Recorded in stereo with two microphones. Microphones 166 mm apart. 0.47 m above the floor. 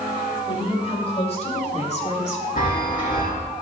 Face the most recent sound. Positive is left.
turn(degrees=60)  # may be behind; listen again after turning